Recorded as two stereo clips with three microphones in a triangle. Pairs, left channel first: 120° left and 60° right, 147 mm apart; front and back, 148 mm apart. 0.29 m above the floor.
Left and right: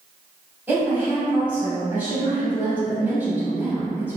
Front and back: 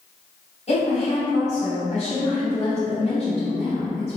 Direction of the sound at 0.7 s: 15° left.